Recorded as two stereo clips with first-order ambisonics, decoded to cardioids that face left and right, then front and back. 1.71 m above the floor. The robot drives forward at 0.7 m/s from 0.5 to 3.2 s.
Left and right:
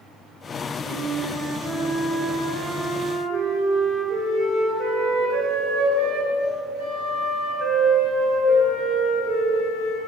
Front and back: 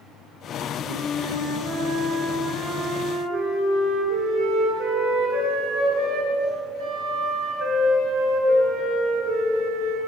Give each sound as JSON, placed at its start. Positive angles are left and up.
{"t": 0.9, "sound": "a flute", "azimuth_deg": 165, "distance_m": 5.0}